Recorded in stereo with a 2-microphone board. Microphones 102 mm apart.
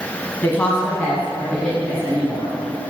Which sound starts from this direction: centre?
A woman speaking, at 0.4 s.